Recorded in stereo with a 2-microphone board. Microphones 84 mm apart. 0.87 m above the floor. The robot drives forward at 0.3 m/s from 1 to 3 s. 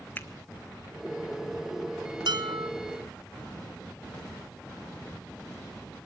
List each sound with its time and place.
0.2 s a finger snap: 25° left (ahead or behind), 1.8 m
2.3 s dishes clattering: 70° right (ahead or behind), 3 m